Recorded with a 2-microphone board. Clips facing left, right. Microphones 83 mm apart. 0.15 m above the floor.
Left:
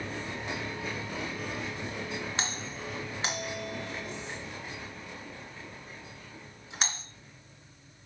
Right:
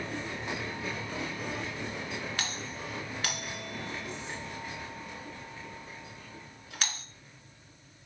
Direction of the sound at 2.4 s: 25° left (ahead or behind).